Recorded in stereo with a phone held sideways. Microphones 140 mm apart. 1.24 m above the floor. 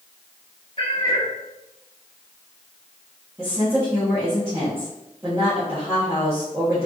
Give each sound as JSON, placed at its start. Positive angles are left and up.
{"t": 0.8, "sound": "a cat meowing", "side_deg": 40, "distance_m": 1.1}
{"t": 3.4, "sound": "a woman speaking", "side_deg": -15, "distance_m": 1.7}